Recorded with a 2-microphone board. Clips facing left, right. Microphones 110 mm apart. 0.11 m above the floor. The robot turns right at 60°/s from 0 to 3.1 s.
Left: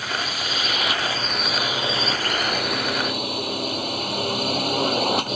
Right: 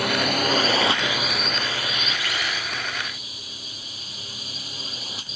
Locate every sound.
0.0 s a drone: 85° right; by 5.4 s 100° left